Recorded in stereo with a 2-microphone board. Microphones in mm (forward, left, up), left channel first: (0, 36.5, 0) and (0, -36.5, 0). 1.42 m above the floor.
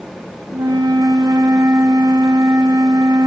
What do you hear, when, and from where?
0.5 s a flute: 55° right (ahead or behind), 0.7 m